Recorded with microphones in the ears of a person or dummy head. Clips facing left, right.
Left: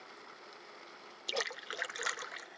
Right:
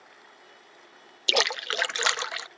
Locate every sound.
1.3 s a splash: 70° right (ahead or behind)